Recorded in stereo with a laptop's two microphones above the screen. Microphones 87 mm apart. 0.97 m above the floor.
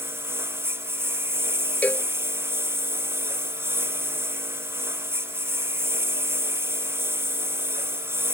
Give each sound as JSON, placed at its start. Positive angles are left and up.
{"t": 0.0, "sound": "a lawn mower", "side_deg": -30}
{"t": 1.8, "sound": "a cowbell", "side_deg": 20}